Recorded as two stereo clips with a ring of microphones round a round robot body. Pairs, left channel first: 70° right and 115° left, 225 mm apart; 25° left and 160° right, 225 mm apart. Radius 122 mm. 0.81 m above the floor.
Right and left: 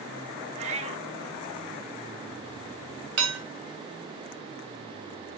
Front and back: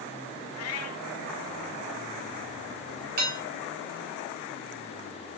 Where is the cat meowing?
50° left, 0.7 m.